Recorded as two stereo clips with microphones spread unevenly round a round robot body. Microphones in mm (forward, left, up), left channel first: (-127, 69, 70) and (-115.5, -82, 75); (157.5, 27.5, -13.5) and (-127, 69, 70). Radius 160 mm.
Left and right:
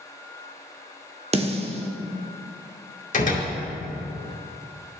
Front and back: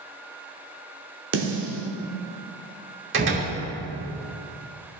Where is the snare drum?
135° right, 1.1 m.